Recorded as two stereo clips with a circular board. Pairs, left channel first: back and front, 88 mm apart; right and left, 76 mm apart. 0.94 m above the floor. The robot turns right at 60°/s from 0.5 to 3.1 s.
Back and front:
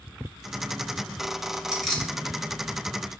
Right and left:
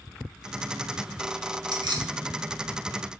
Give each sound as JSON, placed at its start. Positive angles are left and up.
{"t": 1.7, "sound": "keys jangling", "azimuth_deg": 80, "distance_m": 0.8}